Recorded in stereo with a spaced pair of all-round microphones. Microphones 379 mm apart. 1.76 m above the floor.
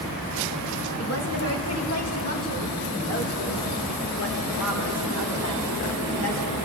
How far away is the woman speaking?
About 3 m.